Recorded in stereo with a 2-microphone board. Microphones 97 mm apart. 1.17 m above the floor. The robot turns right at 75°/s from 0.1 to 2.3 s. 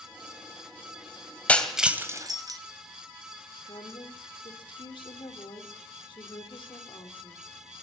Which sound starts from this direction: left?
A woman speaking, at 3.6 s.